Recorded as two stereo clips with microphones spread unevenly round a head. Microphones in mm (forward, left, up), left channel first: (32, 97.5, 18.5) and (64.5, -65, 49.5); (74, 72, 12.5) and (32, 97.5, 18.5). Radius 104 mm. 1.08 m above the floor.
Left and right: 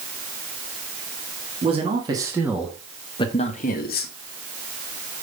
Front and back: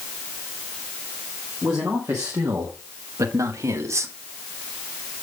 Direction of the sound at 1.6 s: 140° right.